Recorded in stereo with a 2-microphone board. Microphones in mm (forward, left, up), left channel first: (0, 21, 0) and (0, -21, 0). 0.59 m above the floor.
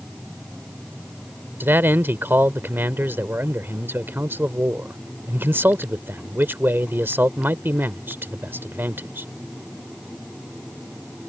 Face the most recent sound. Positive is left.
turn(degrees=-65)  # may be behind; listen again after turning